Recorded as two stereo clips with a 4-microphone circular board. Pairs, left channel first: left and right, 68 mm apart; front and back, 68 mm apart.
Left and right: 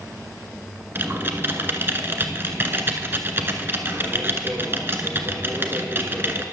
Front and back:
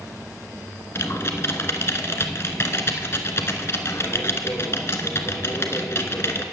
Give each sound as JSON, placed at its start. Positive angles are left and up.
{"t": 0.9, "sound": "typing on a keyboard", "azimuth_deg": -40, "distance_m": 1.2}